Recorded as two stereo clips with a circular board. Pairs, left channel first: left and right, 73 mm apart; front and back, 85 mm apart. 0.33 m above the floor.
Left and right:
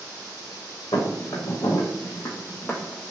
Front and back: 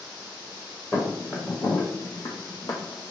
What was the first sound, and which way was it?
Footsteps, 75° left.